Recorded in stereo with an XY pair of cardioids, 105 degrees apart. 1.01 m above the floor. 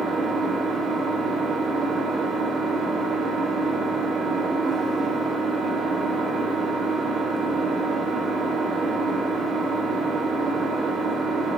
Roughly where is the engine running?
Ahead right.